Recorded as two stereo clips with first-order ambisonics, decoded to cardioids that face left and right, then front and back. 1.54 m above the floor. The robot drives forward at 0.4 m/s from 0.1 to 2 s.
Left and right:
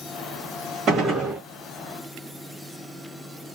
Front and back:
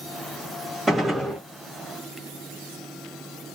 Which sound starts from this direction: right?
A gunshot, at 0.9 s.